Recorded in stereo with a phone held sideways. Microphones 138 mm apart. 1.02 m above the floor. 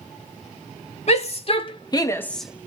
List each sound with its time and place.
1.1 s a shout: 50° left (ahead or behind), 1.8 m; by 2.7 s 20° right (ahead or behind), 0.8 m